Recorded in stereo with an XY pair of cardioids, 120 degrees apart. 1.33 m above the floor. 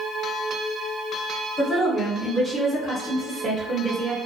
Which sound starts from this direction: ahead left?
A woman speaking, at 1.6 s.